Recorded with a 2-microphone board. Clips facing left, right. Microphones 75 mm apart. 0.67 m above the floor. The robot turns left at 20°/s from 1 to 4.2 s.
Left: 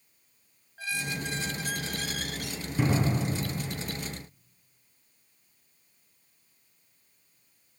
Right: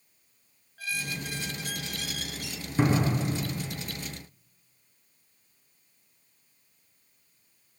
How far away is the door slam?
About 7.5 m.